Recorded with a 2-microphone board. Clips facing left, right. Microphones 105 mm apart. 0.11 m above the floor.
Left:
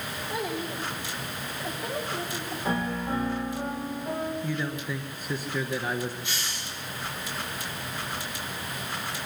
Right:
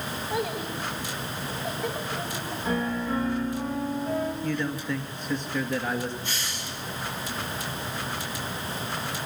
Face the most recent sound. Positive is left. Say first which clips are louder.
# right 1 dB
turn(degrees=10)  # may be behind; listen again after turning